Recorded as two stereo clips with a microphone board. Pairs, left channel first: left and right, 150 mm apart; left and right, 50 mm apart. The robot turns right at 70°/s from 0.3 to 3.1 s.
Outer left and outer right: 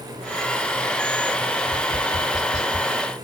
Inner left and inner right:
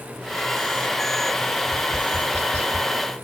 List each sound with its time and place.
1.6 s tapping: 15° left (ahead or behind), 1.8 m; by 2.9 s 20° left (ahead or behind), 1.8 m